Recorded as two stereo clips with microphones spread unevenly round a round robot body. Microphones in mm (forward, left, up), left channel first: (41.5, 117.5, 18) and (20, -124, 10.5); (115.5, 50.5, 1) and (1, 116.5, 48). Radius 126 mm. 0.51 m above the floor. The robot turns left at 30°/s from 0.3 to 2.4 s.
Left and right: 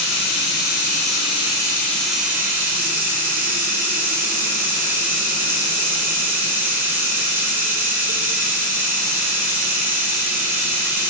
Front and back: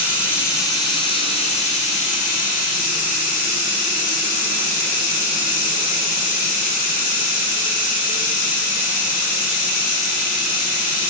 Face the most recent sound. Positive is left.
turn(degrees=-15)